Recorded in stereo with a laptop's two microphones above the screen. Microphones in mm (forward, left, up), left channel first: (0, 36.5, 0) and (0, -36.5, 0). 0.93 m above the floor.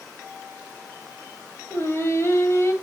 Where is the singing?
35° left (ahead or behind), 1.6 m.